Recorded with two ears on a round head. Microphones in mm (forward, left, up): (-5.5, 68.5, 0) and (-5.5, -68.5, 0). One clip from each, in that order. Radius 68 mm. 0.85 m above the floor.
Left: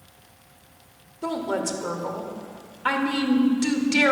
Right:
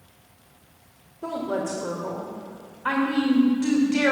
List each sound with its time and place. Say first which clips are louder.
1.2 s a woman speaking: left 1 dB; 75° left (ahead or behind), 2.5 m